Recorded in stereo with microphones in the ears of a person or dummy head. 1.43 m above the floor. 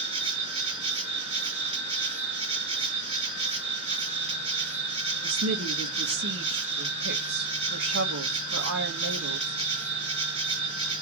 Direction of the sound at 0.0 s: 30° right (ahead or behind).